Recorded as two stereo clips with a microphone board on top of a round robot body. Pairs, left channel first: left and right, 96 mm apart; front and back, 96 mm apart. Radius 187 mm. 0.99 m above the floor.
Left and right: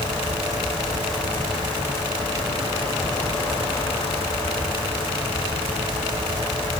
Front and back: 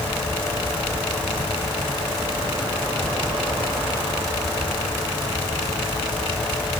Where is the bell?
No bell in this recording.